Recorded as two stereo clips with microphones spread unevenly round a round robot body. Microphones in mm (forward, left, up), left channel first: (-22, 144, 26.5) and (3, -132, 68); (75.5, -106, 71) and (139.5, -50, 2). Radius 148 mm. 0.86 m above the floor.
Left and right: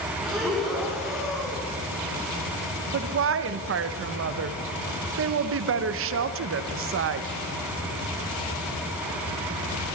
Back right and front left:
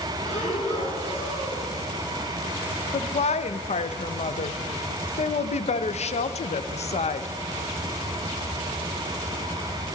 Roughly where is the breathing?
Behind.